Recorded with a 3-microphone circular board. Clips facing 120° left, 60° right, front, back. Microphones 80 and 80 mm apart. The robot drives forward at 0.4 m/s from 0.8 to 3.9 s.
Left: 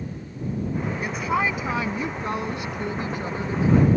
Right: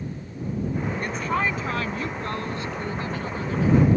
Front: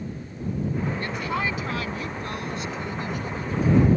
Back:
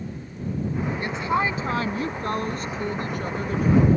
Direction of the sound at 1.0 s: 165° right.